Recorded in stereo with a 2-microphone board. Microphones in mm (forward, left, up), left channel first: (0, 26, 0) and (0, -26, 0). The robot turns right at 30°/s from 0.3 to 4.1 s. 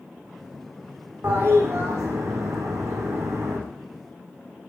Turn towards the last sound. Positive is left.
turn(degrees=-55)